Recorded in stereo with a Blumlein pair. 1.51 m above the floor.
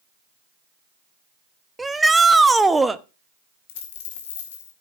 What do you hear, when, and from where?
1.8 s a shout: 10° right, 0.8 m
3.7 s a dropped coin: 55° left, 3 m